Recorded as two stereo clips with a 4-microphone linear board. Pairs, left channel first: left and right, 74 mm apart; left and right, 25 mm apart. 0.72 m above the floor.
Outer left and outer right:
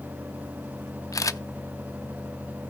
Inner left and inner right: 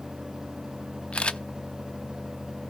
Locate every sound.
1.1 s a camera shutter: 50° left (ahead or behind), 0.6 m